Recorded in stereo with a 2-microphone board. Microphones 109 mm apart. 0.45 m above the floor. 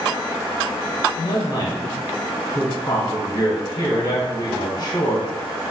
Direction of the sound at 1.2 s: 45° left (ahead or behind).